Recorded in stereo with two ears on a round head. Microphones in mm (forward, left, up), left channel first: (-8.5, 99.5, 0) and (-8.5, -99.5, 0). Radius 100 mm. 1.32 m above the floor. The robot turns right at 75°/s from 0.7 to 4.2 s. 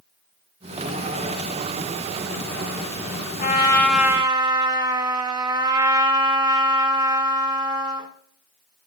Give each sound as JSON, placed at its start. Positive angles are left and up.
{"t": 3.4, "sound": "a trumpet", "azimuth_deg": 140, "distance_m": 1.7}